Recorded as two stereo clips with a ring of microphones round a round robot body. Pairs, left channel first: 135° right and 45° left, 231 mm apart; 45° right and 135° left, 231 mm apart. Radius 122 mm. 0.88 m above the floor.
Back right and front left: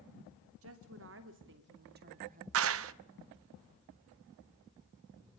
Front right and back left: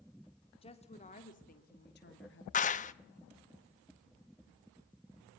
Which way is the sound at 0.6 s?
20° left.